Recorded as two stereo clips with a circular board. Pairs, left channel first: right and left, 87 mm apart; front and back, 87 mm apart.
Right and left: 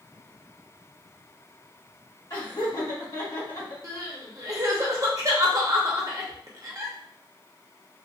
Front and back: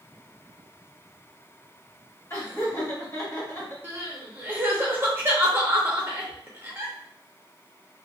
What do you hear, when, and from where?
2.3 s laughter: 50° right, 1.9 m
3.8 s crying: 125° left, 0.6 m